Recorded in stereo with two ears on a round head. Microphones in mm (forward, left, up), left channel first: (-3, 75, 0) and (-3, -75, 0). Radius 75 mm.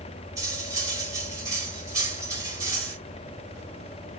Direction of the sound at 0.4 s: 20° right (ahead or behind).